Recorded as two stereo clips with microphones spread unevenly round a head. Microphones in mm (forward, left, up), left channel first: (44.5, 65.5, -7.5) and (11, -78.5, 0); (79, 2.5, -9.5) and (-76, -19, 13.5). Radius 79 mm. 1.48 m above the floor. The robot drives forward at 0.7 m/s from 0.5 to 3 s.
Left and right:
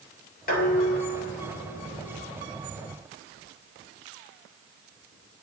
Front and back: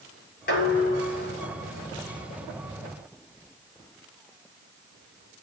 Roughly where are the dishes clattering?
Ahead left.